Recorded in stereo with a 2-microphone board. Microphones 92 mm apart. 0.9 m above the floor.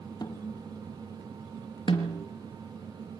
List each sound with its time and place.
0.2 s a snare drum: 45° left (ahead or behind), 0.7 m
1.9 s a snare drum: 65° left (ahead or behind), 3.5 m